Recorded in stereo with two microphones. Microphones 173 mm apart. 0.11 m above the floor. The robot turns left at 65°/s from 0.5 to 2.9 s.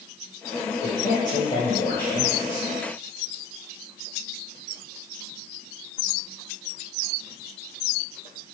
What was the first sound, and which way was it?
A man speaking, 90° left.